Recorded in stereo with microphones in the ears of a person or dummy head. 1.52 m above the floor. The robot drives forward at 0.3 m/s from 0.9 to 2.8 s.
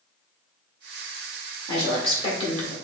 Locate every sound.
1.7 s a woman speaking: 30° left (ahead or behind), 1.5 m; by 2.7 s 40° left (ahead or behind), 1.3 m